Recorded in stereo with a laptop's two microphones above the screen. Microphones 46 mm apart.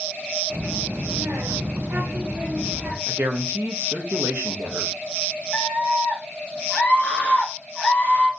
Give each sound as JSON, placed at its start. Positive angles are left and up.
{"t": 0.5, "sound": "a child speaking", "side_deg": -35, "distance_m": 1.0}
{"t": 3.1, "sound": "a woman speaking", "side_deg": -65, "distance_m": 0.8}
{"t": 5.5, "sound": "a scream", "side_deg": 30, "distance_m": 1.0}